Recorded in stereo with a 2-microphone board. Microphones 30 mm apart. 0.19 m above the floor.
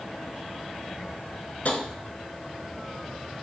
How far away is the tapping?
About 0.6 m.